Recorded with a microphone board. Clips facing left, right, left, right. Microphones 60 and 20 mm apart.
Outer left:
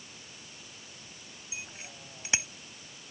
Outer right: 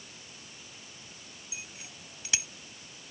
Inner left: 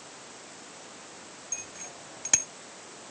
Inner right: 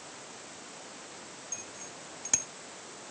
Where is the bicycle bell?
30° left (ahead or behind).